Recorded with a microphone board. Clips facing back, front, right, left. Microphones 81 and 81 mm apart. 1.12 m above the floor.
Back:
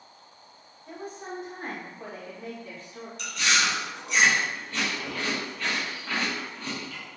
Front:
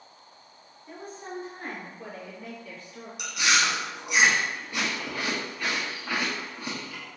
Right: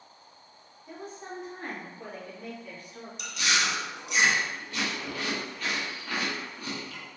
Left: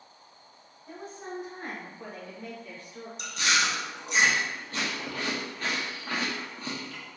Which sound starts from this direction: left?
Chewing, at 3.2 s.